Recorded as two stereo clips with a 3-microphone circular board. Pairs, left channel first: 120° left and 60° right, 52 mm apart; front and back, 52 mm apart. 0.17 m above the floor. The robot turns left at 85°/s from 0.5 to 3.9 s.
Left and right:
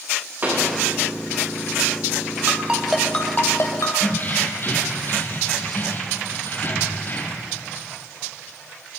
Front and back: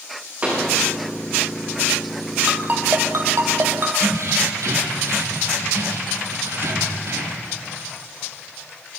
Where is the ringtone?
110° right, 3 m; by 3.9 s 130° left, 3 m.